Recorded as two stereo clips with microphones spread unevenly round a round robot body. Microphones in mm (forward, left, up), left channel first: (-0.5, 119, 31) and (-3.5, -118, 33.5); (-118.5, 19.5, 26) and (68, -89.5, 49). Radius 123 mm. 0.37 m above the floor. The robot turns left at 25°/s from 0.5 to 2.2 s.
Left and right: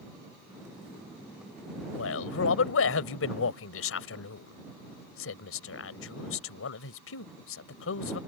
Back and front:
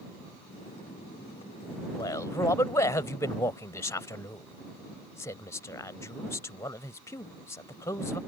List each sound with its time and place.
1.9 s a man speaking: 80° left; by 8.2 s 75° left